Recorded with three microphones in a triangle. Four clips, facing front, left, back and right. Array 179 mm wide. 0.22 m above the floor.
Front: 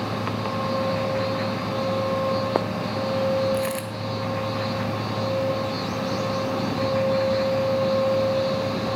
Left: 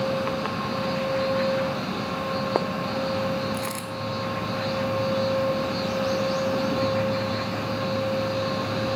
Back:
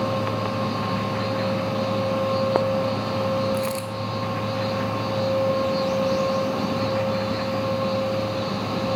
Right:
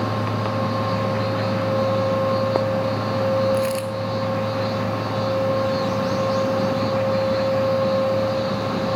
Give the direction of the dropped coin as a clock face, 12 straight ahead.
1 o'clock.